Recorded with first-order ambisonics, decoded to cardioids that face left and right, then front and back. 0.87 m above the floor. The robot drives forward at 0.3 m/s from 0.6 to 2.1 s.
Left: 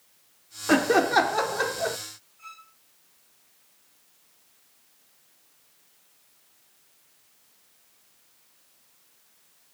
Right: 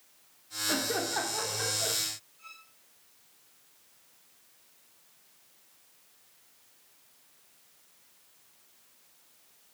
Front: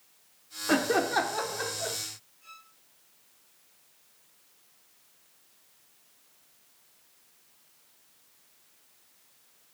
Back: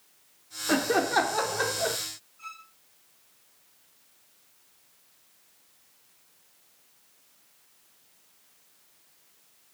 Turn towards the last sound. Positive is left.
turn(degrees=160)